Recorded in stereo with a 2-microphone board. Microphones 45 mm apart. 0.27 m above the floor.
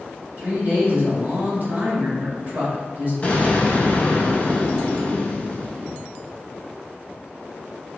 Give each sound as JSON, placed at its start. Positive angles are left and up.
{"t": 0.4, "sound": "a woman speaking", "side_deg": -45, "distance_m": 1.9}
{"t": 3.2, "sound": "an explosion", "side_deg": 35, "distance_m": 0.8}